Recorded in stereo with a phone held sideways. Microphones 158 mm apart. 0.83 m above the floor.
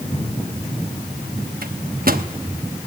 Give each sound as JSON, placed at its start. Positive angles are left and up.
{"t": 1.6, "sound": "a microwave", "side_deg": -70, "distance_m": 1.0}